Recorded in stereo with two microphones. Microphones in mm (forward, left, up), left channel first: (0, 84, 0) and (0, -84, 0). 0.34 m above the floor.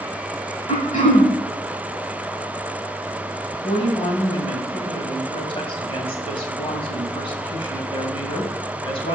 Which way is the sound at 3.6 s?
35° left (ahead or behind).